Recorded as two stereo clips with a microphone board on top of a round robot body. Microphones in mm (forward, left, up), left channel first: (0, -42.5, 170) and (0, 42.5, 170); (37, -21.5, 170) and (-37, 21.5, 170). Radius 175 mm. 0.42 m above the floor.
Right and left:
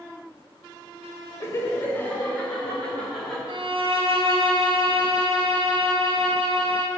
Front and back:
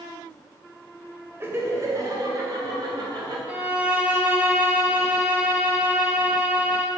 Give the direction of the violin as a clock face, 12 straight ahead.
10 o'clock.